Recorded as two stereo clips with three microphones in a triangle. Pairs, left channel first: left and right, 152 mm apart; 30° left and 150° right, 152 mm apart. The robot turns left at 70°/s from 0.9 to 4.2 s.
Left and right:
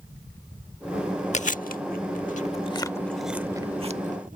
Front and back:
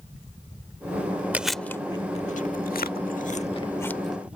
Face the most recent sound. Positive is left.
turn(degrees=-70)